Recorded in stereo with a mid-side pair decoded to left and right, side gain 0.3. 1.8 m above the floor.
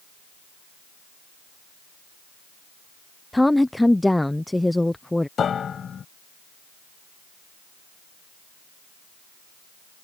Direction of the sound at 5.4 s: 65° left.